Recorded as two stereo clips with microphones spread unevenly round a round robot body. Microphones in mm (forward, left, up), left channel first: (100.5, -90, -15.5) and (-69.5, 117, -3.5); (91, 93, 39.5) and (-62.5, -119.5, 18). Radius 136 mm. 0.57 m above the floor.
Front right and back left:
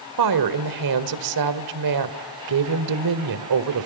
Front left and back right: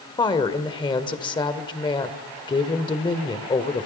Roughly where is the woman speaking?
Behind left.